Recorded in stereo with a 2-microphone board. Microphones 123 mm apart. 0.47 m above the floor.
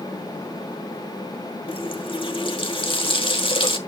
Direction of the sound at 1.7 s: 45° left (ahead or behind).